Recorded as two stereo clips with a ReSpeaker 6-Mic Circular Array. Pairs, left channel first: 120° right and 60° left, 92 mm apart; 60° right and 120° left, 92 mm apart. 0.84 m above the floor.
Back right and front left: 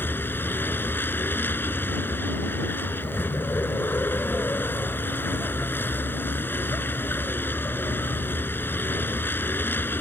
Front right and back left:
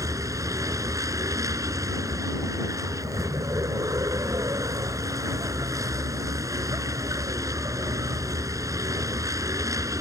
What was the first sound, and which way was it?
A vehicle, 175° left.